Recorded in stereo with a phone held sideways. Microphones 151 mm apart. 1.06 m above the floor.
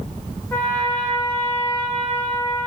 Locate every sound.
0.5 s a trumpet: 15° left (ahead or behind), 0.6 m